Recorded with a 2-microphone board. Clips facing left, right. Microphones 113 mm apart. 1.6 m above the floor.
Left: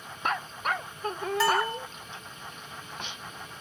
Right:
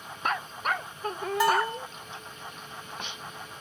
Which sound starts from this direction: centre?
A bell, at 1.4 s.